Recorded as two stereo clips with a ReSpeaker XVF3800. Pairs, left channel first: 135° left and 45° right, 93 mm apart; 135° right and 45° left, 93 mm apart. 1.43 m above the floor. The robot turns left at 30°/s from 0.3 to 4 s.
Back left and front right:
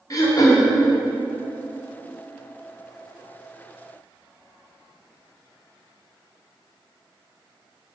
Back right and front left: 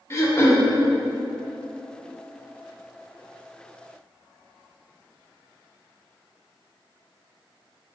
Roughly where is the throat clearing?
Behind.